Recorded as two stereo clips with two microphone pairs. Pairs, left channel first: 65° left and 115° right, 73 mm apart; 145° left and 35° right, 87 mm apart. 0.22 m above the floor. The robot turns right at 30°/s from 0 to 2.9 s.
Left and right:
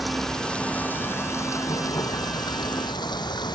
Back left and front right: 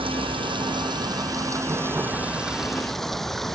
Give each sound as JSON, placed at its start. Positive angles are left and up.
{"t": 0.0, "sound": "running water", "azimuth_deg": -30}